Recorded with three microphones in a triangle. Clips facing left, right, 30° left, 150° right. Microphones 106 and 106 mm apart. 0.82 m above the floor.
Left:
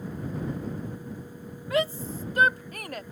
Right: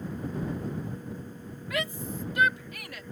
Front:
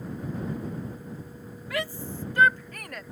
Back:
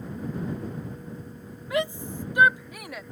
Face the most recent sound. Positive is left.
turn(degrees=125)